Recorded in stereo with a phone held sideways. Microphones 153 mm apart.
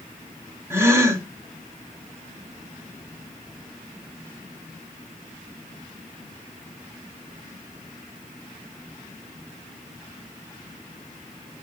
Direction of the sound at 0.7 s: 15° right (ahead or behind).